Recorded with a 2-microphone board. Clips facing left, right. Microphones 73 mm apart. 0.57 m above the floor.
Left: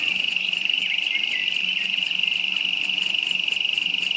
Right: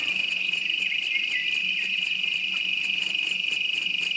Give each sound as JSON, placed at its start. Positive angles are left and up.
{"t": 0.0, "sound": "an insect", "side_deg": 75, "distance_m": 0.8}